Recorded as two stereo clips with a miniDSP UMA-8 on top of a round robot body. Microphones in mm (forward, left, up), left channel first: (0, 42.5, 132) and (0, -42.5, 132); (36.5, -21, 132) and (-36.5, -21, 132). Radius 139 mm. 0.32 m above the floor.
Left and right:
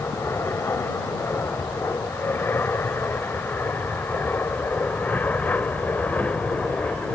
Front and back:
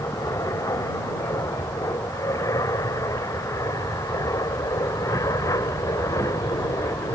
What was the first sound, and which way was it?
An aircraft, 35° left.